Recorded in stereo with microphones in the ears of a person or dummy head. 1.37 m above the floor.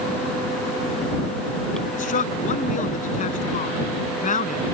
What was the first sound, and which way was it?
A man speaking, 45° left (ahead or behind).